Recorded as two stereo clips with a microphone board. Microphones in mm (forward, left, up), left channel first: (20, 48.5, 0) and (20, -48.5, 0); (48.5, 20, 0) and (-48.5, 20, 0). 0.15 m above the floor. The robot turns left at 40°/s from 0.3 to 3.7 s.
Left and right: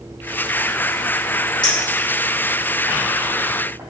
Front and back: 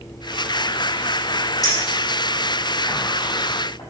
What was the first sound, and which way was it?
A clink, 55° left.